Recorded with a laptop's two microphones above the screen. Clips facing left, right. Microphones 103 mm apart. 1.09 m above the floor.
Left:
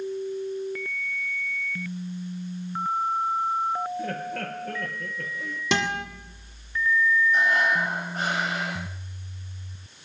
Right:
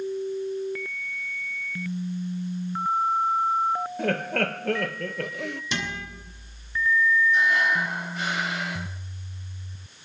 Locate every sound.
4.0 s laughter: 75° right (ahead or behind), 0.7 m
5.7 s a guitar: 85° left, 1.9 m
7.3 s breathing: 45° left (ahead or behind), 5.5 m